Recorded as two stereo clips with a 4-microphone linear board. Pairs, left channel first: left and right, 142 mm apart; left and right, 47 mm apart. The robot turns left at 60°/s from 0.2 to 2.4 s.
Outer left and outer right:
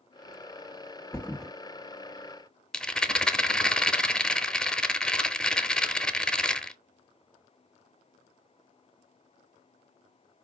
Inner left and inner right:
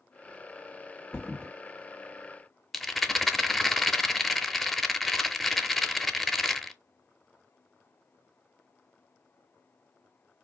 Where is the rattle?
5° left (ahead or behind), 0.6 m.